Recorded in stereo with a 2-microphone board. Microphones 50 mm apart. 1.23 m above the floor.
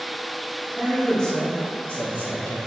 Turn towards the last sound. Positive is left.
turn(degrees=40)  # may be behind; listen again after turning